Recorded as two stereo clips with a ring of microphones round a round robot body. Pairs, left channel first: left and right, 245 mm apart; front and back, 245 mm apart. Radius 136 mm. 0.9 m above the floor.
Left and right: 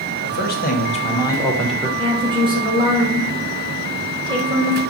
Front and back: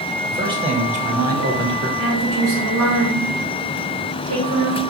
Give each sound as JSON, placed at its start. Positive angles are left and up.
{"t": 0.2, "sound": "a man speaking", "azimuth_deg": 105, "distance_m": 1.0}
{"t": 2.0, "sound": "a woman speaking", "azimuth_deg": -160, "distance_m": 1.6}